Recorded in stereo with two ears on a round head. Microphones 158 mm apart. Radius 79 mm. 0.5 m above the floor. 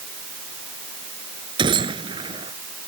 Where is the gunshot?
30° right (ahead or behind).